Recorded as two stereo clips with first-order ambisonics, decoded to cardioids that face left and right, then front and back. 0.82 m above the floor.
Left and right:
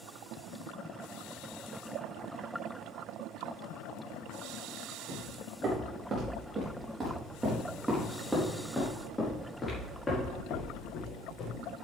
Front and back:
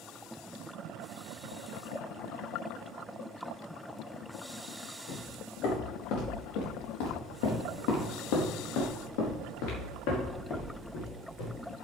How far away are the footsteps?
About 4.5 m.